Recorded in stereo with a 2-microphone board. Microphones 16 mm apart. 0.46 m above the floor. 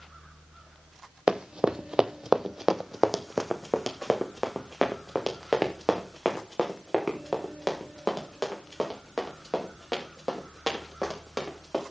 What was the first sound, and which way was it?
Running footsteps, 55° right (ahead or behind).